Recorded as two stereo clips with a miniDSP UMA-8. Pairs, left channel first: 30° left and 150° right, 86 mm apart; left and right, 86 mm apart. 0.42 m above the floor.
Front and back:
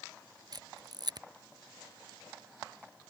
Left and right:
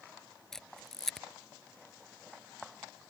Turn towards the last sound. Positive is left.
turn(degrees=175)